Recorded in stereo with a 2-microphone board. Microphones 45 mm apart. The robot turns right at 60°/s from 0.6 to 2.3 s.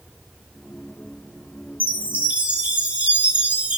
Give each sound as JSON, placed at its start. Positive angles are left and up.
{"t": 1.8, "sound": "a chime", "side_deg": -50, "distance_m": 1.1}